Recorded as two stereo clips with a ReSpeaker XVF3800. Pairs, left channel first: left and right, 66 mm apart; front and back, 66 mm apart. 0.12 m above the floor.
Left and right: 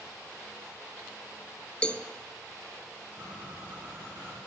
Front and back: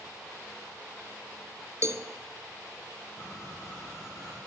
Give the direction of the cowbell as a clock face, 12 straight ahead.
7 o'clock.